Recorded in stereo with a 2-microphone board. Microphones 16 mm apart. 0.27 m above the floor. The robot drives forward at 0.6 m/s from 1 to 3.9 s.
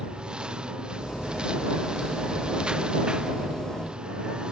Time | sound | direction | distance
0.0 | a lawn mower | 65° right (ahead or behind) | ?